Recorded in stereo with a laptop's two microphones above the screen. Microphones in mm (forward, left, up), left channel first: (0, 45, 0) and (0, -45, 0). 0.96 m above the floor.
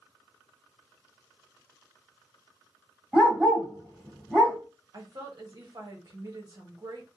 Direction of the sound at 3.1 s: 5° right (ahead or behind).